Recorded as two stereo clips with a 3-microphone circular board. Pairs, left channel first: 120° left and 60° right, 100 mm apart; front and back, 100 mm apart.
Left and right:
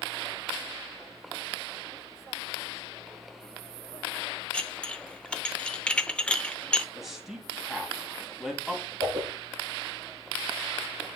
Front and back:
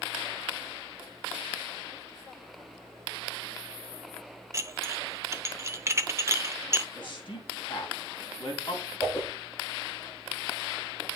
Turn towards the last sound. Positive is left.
turn(degrees=-60)